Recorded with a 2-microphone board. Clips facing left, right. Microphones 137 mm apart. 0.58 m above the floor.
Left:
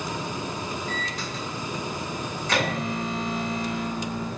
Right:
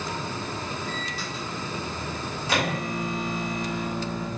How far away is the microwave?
About 1.4 m.